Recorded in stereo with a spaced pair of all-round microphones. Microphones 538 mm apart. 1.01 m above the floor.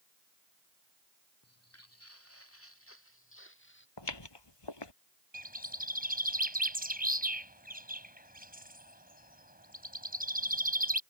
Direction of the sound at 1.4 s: 25° left (ahead or behind).